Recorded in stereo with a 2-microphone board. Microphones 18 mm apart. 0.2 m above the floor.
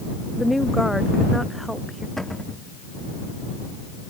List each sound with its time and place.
0.4 s a woman speaking: 5° right (ahead or behind)
2.2 s a cupboard door: 15° left (ahead or behind)